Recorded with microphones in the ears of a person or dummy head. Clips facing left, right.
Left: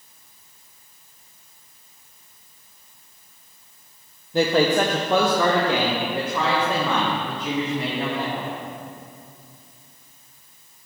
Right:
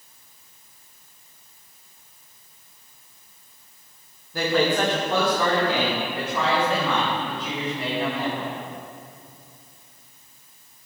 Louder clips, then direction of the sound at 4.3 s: Left 3 dB; 20° left (ahead or behind).